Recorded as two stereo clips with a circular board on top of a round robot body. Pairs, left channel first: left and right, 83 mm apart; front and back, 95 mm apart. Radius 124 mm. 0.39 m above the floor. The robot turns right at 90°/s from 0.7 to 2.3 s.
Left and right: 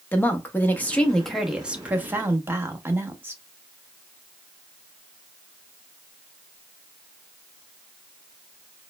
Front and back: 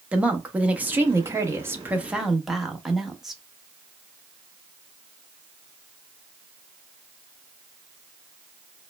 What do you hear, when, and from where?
0.1 s a woman speaking: 120° left, 0.9 m; by 3.4 s 95° right, 0.9 m